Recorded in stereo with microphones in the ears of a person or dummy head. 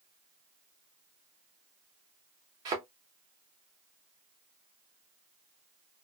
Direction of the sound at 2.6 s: 20° right (ahead or behind).